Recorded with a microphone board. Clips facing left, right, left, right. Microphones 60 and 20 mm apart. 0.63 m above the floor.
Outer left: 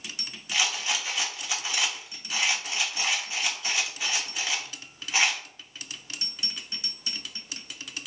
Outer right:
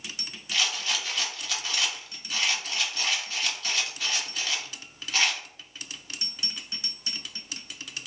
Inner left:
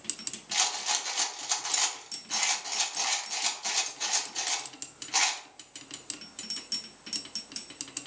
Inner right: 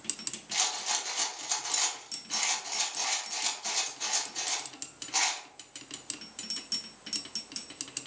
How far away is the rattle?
About 0.8 m.